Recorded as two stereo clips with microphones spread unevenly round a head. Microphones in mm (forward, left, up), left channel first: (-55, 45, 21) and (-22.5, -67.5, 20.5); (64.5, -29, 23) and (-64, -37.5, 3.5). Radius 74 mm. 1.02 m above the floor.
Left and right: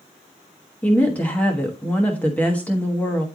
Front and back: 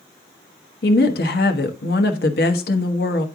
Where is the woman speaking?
25° left, 1.2 m.